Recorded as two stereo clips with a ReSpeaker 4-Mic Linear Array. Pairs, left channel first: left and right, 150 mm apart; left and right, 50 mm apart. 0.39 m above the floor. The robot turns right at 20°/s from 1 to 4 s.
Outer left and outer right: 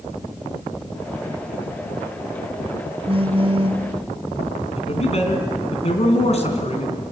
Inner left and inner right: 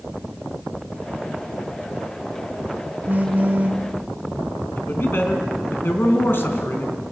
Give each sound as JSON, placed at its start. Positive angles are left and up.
{"t": 3.1, "sound": "a phone buzzing", "side_deg": -40, "distance_m": 0.6}
{"t": 4.8, "sound": "a man speaking", "side_deg": 50, "distance_m": 3.5}